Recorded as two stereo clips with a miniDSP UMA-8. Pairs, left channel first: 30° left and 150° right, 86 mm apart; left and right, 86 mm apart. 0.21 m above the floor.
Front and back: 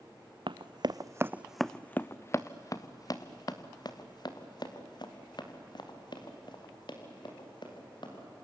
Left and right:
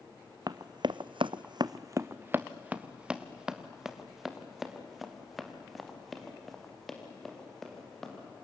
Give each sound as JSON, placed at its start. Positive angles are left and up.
{"t": 0.5, "sound": "running footsteps", "azimuth_deg": -135, "distance_m": 0.8}